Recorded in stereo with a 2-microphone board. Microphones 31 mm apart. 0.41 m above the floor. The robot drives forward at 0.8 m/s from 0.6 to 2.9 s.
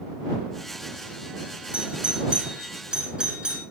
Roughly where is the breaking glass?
No breaking glass in this recording.